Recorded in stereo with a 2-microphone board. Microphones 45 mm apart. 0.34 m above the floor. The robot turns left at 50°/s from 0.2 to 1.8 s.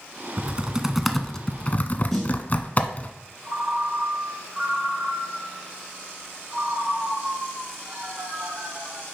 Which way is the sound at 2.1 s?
5° left (ahead or behind).